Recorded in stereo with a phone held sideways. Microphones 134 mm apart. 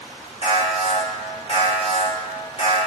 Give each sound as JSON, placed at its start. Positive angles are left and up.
{"t": 0.4, "sound": "an alarm", "side_deg": 55, "distance_m": 2.0}